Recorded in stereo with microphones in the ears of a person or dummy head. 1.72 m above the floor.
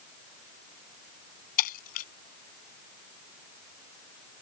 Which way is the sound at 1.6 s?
50° left (ahead or behind).